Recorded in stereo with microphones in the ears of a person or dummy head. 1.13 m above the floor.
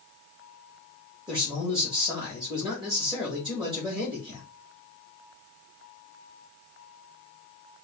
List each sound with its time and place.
1.3 s a man speaking: 25° right (ahead or behind), 2 m